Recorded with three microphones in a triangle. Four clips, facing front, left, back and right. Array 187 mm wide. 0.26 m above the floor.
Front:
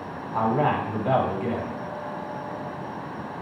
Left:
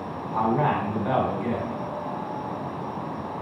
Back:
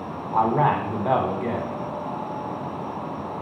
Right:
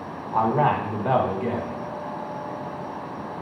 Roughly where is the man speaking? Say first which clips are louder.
Right 2 dB, back 3 dB; behind right.